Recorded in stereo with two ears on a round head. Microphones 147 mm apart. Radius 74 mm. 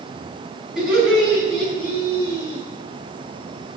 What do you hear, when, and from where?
0.8 s laughter: 5° right (ahead or behind), 5 m; by 2.6 s 20° left (ahead or behind), 4.5 m